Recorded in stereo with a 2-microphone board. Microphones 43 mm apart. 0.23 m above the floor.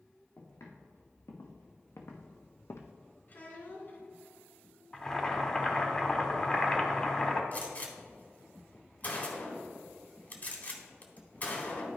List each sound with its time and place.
0.4 s footsteps: 80° left, 2.5 m; by 2.9 s 75° left (ahead or behind), 0.6 m
3.3 s a child speaking: 45° left (ahead or behind), 1.6 m
4.9 s boiling: 15° left (ahead or behind), 1.0 m
7.5 s a gunshot: 35° left (ahead or behind), 1.3 m